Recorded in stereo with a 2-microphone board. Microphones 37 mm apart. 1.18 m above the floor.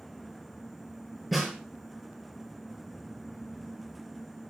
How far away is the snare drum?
About 5 m.